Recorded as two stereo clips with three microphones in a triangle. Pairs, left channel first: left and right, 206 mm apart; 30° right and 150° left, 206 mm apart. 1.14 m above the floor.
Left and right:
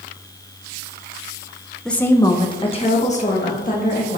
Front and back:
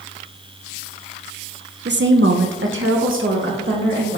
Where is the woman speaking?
175° left, 0.6 m; by 4.2 s 135° left, 1.7 m.